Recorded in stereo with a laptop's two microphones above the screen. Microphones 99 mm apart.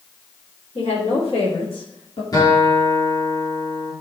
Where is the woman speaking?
75° left (ahead or behind), 2.5 m; by 2.2 s 65° left (ahead or behind), 1.7 m.